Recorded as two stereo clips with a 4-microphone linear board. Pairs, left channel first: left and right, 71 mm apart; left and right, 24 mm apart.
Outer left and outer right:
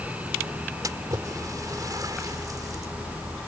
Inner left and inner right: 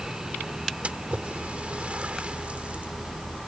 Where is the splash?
60° right (ahead or behind).